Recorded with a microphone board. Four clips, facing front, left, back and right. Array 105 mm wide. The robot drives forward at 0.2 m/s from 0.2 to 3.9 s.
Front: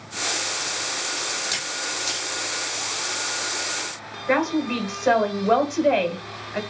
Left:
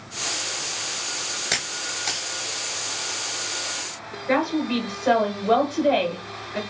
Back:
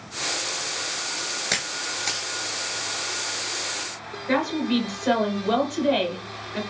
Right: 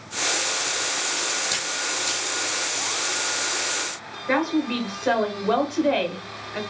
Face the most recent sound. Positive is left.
turn(degrees=-15)